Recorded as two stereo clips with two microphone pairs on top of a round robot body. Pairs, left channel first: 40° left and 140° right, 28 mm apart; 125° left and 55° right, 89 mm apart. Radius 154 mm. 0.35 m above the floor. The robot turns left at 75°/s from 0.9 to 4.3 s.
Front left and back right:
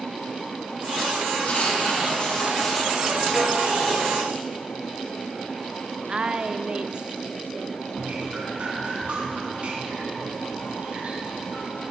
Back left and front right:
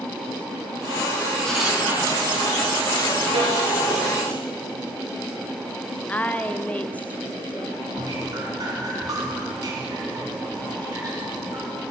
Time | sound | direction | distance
1.4 | writing | 45° left | 5.5 m
3.3 | a snare drum | 75° right | 5 m
6.1 | a woman speaking | 175° left | 0.9 m
7.9 | dripping | 100° right | 3 m